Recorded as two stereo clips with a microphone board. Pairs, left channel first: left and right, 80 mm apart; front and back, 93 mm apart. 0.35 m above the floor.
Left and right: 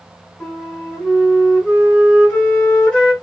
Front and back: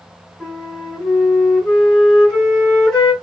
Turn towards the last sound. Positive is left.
turn(degrees=65)